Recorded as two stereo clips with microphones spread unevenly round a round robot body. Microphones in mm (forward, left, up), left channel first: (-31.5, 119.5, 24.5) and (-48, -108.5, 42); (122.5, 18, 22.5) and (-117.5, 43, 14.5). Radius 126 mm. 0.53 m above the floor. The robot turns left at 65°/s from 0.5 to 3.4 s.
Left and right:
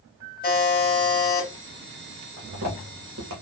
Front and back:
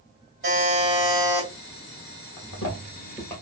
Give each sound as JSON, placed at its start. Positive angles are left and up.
{"t": 0.4, "sound": "a buzzer", "azimuth_deg": 130, "distance_m": 2.0}
{"t": 2.4, "sound": "footsteps", "azimuth_deg": -25, "distance_m": 1.4}